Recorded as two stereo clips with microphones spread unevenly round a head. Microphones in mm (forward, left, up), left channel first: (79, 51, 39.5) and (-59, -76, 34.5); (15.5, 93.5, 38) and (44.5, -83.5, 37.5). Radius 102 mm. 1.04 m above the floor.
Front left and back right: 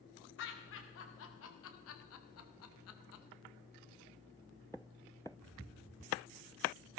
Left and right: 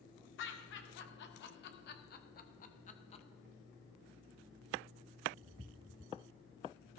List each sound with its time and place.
0.4 s laughter: 75° left, 2.5 m; by 3.2 s 35° left, 1.2 m